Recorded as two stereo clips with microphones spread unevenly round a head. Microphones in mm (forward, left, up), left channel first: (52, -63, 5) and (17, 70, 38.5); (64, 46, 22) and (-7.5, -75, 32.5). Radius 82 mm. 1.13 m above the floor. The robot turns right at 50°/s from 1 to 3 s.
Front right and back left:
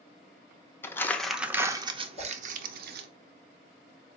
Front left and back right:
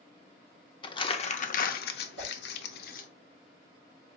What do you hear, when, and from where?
0.8 s crumpling: straight ahead, 0.5 m; by 3.1 s 100° left, 0.5 m
2.2 s a whoosh: 120° right, 1.2 m; by 2.3 s 115° right, 1.2 m